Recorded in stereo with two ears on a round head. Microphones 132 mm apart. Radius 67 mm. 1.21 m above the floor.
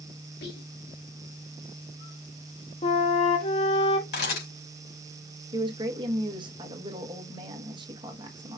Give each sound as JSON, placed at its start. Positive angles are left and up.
{"t": 0.4, "sound": "whispering", "side_deg": 85, "distance_m": 2.0}
{"t": 2.8, "sound": "a flute", "side_deg": 40, "distance_m": 0.7}
{"t": 4.1, "sound": "a camera shutter", "side_deg": 85, "distance_m": 3.0}
{"t": 5.5, "sound": "a woman speaking", "side_deg": -35, "distance_m": 1.3}